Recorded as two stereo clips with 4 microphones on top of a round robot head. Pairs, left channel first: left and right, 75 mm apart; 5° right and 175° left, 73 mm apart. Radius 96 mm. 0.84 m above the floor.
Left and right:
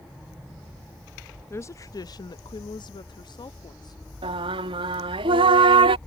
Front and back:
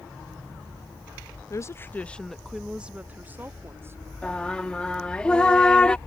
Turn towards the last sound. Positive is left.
turn(degrees=-85)